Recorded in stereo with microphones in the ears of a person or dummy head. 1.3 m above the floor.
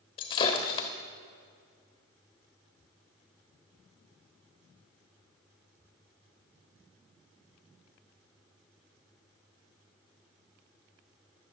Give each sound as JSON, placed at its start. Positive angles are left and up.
{"t": 0.2, "sound": "breaking glass", "side_deg": 30, "distance_m": 1.6}